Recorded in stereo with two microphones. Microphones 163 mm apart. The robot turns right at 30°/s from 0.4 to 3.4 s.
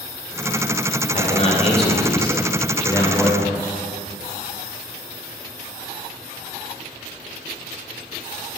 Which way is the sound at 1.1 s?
90° left.